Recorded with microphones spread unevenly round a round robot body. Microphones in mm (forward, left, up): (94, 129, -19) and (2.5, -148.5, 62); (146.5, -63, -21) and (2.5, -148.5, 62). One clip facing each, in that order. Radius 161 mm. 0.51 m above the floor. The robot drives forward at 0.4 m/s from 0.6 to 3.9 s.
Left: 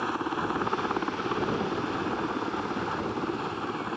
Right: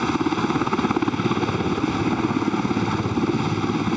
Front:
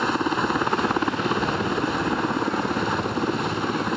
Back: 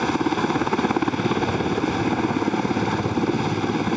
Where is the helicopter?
80° right.